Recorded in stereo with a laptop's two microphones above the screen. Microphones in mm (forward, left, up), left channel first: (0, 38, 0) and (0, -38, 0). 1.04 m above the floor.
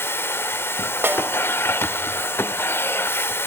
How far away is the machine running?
About 1.0 m.